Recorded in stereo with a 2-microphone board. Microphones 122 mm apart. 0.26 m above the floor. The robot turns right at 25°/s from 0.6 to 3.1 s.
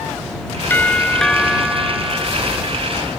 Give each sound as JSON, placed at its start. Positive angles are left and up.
{"t": 0.7, "sound": "a doorbell", "azimuth_deg": 165}